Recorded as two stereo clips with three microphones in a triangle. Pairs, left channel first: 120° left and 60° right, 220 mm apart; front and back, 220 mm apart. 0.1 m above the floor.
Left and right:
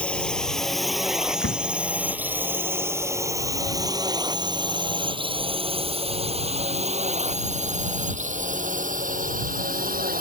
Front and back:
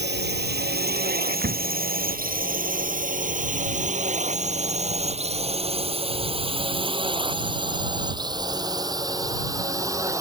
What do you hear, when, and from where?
0.0 s a drone: 155° right; by 10.2 s 105° right
1.4 s a door slam: 135° left